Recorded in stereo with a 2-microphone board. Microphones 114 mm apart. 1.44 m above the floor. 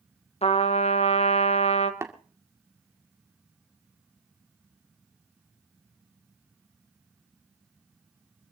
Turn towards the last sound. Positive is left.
turn(degrees=-25)  # may be behind; listen again after turning